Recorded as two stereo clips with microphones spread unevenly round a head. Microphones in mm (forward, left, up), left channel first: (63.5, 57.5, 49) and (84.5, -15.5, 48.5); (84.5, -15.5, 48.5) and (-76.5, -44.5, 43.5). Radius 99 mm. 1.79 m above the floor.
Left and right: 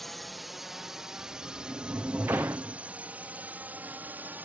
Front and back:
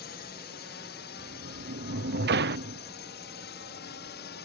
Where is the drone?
15° left; by 4.5 s 10° right.